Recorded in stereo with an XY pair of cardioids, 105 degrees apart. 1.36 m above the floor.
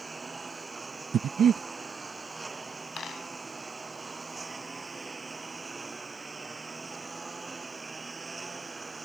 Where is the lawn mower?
20° right.